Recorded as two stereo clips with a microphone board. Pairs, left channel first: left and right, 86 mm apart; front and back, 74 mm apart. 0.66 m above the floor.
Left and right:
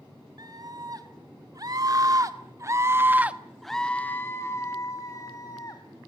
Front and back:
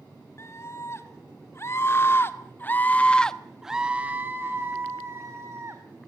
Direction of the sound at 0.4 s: 50° right.